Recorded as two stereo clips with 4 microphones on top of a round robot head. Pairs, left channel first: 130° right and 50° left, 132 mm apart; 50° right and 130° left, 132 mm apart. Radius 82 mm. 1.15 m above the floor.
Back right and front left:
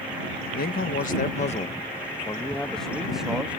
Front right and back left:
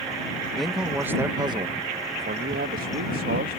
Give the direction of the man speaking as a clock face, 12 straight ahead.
5 o'clock.